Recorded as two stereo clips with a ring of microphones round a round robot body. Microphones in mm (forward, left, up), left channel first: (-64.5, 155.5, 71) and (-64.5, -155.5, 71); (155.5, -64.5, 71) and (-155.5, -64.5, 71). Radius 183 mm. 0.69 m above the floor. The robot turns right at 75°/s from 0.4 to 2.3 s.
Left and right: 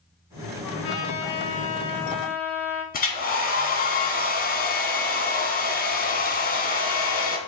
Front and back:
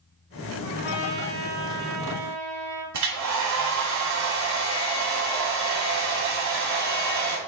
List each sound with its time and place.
0.6 s a trumpet: 50° left, 1.8 m; by 2.8 s 175° left, 1.8 m
2.9 s a hair dryer: 150° left, 1.6 m